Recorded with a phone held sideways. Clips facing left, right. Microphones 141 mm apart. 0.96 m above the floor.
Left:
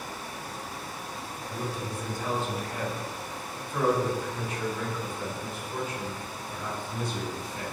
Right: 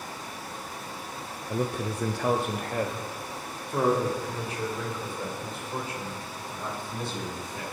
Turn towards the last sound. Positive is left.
turn(degrees=-30)  # may be behind; listen again after turning